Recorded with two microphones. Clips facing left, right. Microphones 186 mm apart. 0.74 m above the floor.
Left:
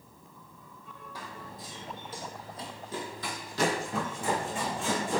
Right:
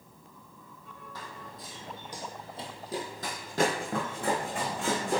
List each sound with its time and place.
1.1 s running footsteps: 10° left (ahead or behind), 1.2 m; by 5.2 s 70° right (ahead or behind), 1.9 m